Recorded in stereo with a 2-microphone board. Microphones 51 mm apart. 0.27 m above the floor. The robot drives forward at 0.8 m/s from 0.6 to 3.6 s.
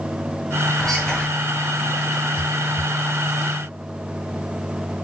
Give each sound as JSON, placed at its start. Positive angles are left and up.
{"t": 0.8, "sound": "whispering", "side_deg": 15, "distance_m": 1.8}